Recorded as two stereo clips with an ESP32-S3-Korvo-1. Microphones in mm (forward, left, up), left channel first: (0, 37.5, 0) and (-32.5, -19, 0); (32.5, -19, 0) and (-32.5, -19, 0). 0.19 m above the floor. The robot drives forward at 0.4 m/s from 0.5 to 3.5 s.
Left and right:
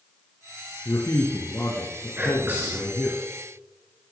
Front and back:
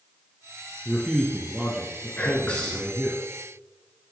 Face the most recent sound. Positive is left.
turn(degrees=-80)